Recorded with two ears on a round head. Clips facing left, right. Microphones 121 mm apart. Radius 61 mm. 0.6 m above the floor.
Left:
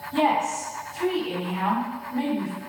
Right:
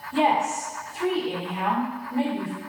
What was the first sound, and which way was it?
A woman speaking, 10° right (ahead or behind).